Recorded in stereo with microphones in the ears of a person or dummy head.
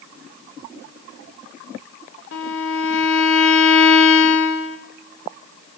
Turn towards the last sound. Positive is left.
turn(degrees=80)